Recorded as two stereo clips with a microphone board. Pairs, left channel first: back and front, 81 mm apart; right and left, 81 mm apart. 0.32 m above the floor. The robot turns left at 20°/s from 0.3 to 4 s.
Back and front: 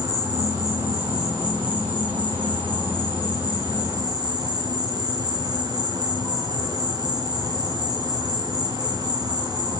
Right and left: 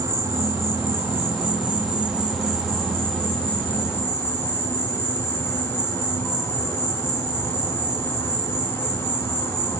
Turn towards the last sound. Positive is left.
turn(degrees=-30)